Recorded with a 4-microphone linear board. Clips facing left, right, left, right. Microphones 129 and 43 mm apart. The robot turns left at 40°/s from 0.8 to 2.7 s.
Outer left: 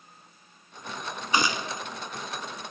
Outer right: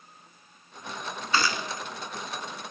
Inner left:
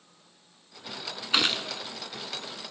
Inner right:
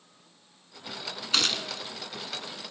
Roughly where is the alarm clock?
I don't hear an alarm clock.